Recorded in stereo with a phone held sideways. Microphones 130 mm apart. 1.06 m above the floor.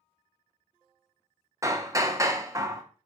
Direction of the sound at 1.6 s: 25° right (ahead or behind).